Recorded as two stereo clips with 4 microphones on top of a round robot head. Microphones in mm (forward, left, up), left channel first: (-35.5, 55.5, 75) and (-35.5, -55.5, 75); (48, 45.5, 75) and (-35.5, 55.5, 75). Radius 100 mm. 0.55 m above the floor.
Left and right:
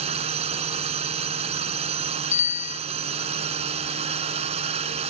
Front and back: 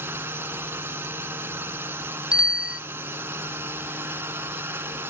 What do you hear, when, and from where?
0.0 s a drone: 115° right
2.3 s a bicycle bell: 95° left